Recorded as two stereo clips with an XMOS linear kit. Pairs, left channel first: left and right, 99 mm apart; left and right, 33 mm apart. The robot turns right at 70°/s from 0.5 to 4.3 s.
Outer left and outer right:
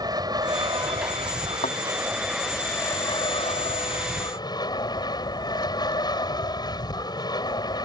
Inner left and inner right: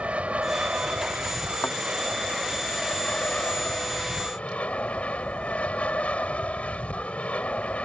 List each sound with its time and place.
0.0 s an aircraft: 135° right; by 7.9 s 130° left
1.6 s a thud: 90° left; by 1.8 s 80° left